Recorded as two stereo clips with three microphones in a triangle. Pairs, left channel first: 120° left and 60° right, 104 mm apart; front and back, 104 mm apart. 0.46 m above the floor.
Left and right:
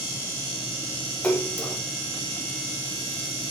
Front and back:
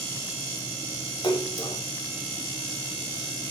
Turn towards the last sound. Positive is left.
turn(degrees=45)